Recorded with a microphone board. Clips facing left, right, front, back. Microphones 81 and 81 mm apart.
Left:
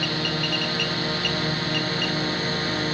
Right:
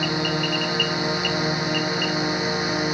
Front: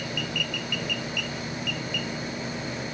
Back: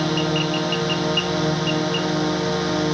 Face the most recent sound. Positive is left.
turn(degrees=-165)